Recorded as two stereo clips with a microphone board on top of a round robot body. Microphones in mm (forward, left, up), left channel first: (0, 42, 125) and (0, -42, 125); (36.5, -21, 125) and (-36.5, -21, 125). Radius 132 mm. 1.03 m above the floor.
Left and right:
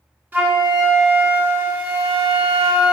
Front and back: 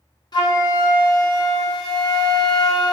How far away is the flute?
About 0.9 m.